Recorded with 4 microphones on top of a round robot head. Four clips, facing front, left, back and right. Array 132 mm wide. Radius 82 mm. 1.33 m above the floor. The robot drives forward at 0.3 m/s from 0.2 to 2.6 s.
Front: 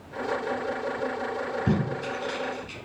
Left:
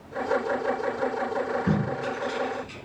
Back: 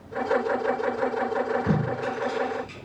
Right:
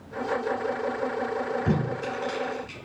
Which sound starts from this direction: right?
Tape being pulled, at 1.7 s.